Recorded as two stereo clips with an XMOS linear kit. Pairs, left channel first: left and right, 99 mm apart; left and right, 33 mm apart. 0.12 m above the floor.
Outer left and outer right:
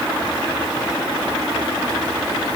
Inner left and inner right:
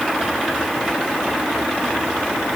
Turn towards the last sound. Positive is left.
No sound to turn to.